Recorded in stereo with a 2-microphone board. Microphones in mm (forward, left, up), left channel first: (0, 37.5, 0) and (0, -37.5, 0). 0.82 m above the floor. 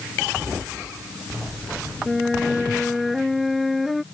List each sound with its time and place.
2.1 s a flute: centre (ahead or behind)